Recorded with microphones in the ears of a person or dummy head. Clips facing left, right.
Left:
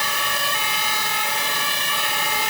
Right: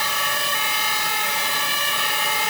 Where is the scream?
I don't hear a scream.